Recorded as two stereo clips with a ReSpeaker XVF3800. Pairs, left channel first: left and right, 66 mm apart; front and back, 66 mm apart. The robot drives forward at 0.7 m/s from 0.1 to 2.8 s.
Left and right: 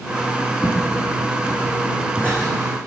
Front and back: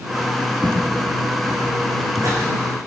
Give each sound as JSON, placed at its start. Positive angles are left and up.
{"t": 0.6, "sound": "footsteps", "azimuth_deg": 140, "distance_m": 5.0}